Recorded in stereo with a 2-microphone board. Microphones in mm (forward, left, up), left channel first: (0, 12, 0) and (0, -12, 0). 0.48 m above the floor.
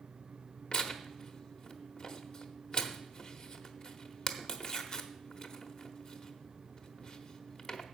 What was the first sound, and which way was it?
Tearing paper, 40° left (ahead or behind).